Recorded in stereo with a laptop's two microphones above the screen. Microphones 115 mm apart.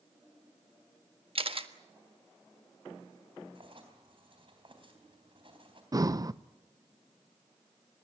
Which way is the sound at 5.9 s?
30° right (ahead or behind).